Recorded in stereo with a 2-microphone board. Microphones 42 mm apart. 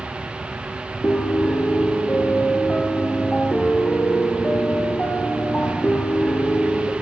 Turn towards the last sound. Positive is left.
turn(degrees=25)  # may be behind; listen again after turning